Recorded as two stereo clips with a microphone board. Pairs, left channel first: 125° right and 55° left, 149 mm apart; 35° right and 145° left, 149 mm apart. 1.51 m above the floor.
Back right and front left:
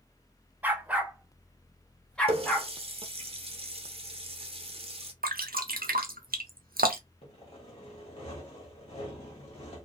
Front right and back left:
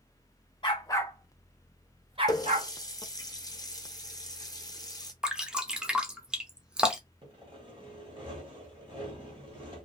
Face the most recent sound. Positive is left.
turn(degrees=-165)